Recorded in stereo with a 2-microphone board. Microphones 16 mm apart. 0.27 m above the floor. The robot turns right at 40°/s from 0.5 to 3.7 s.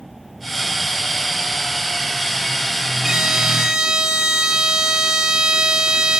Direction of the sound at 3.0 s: 50° right (ahead or behind).